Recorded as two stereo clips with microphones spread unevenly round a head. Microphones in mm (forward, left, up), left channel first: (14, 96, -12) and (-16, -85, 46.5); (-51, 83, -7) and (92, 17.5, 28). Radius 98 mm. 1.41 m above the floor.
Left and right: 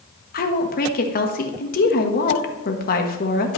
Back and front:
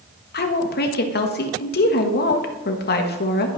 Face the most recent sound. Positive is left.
turn(degrees=130)